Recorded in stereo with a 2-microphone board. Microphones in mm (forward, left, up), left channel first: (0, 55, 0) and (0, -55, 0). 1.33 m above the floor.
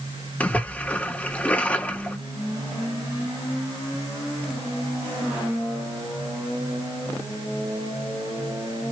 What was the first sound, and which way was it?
A splash, 15° left (ahead or behind).